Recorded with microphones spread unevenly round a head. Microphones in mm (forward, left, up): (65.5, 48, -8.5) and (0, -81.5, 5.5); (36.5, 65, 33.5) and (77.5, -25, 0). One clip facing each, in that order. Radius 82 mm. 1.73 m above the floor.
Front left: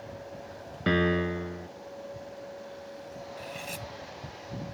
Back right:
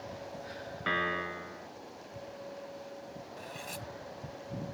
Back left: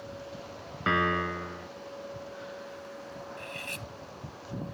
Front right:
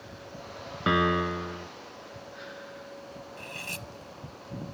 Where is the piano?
15° left.